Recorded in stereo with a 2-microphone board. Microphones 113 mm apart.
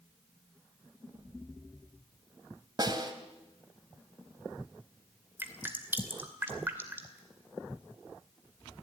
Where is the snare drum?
35° right (ahead or behind), 2 m.